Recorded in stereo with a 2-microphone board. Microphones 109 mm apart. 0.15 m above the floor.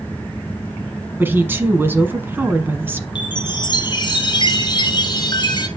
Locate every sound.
1.2 s a woman speaking: 20° right (ahead or behind), 1.1 m
3.1 s a chime: 40° left (ahead or behind), 1.6 m